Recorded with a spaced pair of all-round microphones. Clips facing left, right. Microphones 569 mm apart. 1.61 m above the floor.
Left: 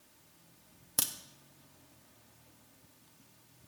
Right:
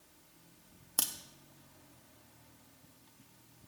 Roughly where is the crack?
Left.